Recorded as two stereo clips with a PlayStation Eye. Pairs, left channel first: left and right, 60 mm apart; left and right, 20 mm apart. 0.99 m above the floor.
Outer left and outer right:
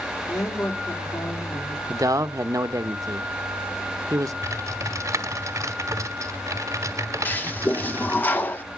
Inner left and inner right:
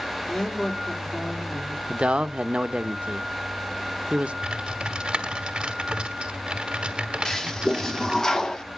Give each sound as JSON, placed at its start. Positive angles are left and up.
{"t": 0.3, "sound": "a woman speaking", "side_deg": 75, "distance_m": 3.0}
{"t": 1.9, "sound": "a man speaking", "side_deg": -70, "distance_m": 0.8}
{"t": 4.4, "sound": "typing on a keyboard", "side_deg": -60, "distance_m": 1.6}
{"t": 7.2, "sound": "a toilet flushing", "side_deg": 30, "distance_m": 0.9}